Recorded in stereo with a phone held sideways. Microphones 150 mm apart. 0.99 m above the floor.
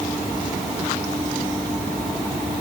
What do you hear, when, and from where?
Only background noise.